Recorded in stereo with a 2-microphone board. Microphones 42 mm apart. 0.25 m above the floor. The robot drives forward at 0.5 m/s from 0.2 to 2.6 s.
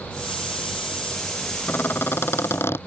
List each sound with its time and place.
1.7 s a squeak: 60° left (ahead or behind); by 2.8 s 80° left